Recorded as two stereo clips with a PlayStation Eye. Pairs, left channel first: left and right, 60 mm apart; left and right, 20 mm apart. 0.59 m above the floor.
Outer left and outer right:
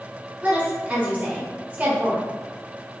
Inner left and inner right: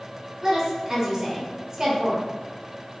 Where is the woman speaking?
25° right (ahead or behind), 1.2 m.